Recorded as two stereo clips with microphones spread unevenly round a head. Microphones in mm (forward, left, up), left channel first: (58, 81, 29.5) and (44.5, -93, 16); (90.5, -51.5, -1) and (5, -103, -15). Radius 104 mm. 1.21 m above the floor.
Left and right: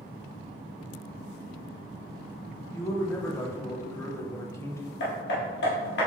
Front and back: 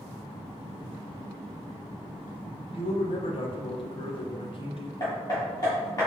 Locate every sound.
2.7 s a man speaking: 10° left, 0.9 m
5.0 s hammering: 90° left, 1.2 m